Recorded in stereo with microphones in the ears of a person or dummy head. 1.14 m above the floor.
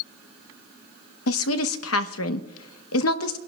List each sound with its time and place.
1.3 s a woman speaking: 75° left (ahead or behind), 1.0 m